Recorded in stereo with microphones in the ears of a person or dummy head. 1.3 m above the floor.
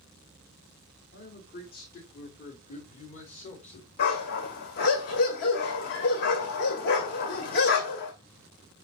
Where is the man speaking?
55° left (ahead or behind), 4 m; by 3.9 s 35° left (ahead or behind), 3 m.